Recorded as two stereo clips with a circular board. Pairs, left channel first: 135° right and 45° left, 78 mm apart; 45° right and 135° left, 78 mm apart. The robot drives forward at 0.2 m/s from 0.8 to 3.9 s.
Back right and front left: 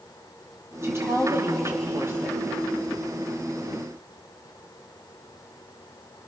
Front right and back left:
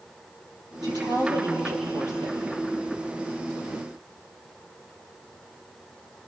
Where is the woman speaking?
105° left, 6.5 m.